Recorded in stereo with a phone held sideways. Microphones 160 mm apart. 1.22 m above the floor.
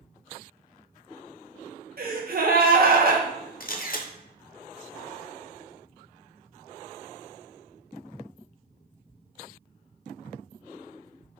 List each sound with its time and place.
2.0 s a gasp: 65° right (ahead or behind), 0.7 m
3.6 s a camera shutter: 65° left (ahead or behind), 0.6 m